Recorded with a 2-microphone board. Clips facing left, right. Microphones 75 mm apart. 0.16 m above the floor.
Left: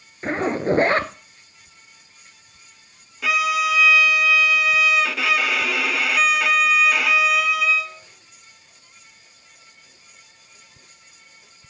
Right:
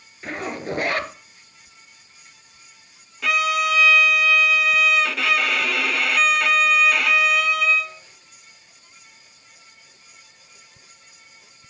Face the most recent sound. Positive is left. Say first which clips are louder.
# even
turn(degrees=0)  # may be behind; listen again after turning